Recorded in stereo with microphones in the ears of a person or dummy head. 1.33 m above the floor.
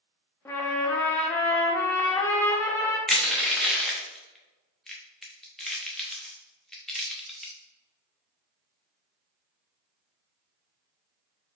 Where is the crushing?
10° left (ahead or behind), 0.7 m.